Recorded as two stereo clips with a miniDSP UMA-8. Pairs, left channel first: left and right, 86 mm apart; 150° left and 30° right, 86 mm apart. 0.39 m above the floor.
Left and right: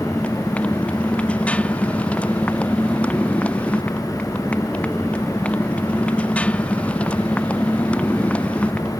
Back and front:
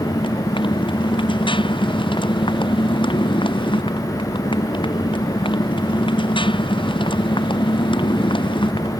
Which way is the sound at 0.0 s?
165° left.